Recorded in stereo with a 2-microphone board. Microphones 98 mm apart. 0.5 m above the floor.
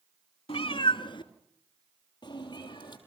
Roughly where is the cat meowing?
Left.